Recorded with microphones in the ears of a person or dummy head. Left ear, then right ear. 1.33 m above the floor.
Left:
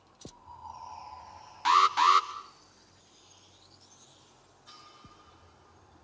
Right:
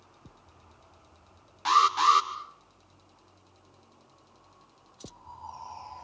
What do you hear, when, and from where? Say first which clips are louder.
1.6 s an alarm: right 1 dB; 30° left (ahead or behind), 1.8 m